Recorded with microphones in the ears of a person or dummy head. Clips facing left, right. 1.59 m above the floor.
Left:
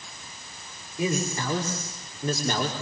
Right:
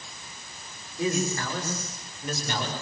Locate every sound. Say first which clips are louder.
1.0 s a man speaking: even; 15° left (ahead or behind), 6 m; by 2.7 s 40° left (ahead or behind), 5.5 m